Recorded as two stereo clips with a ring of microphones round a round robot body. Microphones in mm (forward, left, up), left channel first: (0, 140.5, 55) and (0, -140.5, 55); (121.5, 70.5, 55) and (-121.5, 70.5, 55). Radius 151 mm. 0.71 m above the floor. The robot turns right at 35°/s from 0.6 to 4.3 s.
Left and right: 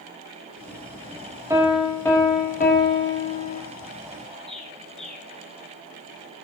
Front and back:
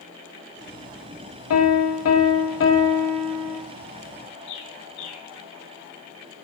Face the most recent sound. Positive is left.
turn(degrees=0)